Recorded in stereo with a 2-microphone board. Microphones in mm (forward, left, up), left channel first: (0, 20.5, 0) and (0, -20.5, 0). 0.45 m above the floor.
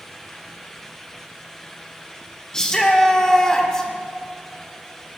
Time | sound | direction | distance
2.5 | a shout | 15° left (ahead or behind) | 1.0 m